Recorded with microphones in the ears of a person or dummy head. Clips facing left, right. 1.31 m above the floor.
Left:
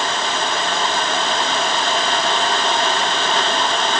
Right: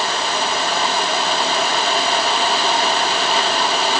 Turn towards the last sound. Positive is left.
No sound to turn to.